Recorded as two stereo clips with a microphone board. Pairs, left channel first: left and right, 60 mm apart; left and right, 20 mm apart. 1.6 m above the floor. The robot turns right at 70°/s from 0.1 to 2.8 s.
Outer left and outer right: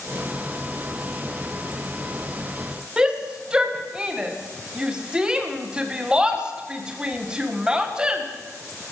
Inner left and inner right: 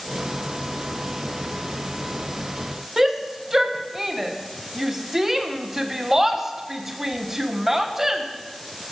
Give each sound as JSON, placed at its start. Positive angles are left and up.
{"t": 3.0, "sound": "a shout", "side_deg": -15, "distance_m": 1.7}